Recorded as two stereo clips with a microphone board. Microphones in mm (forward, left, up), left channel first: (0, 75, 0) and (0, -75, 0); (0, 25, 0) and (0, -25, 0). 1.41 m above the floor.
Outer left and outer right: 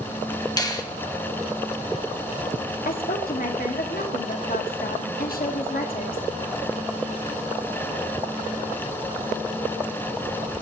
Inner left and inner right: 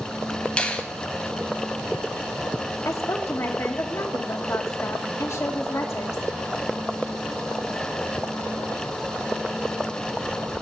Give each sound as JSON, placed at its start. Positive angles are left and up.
{"t": 0.6, "sound": "a finger snap", "side_deg": 25, "distance_m": 1.2}
{"t": 2.9, "sound": "a woman speaking", "side_deg": 75, "distance_m": 1.5}